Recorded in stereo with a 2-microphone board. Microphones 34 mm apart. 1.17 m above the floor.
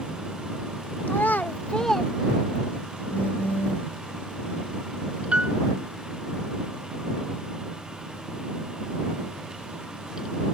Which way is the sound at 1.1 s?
80° left.